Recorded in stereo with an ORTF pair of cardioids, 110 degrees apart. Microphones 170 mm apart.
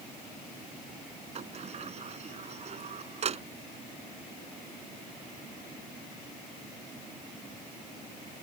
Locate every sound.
1.4 s a sliding door: 40° right